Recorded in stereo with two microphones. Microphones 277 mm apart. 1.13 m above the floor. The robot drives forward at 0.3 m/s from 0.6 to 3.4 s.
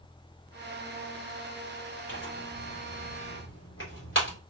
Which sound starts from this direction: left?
Tearing paper, at 2.1 s.